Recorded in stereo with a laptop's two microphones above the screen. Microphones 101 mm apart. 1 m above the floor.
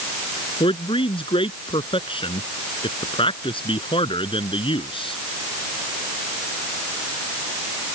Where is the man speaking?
60° left (ahead or behind).